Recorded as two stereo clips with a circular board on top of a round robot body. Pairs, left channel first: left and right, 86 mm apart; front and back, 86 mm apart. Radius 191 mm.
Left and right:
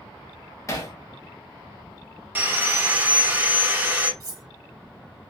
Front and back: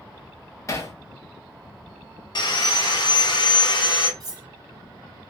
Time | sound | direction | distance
0.7 | hammering | 45° left | 1.0 m
2.4 | sawing | 25° right | 1.0 m
4.2 | cutlery clinking | 135° right | 0.7 m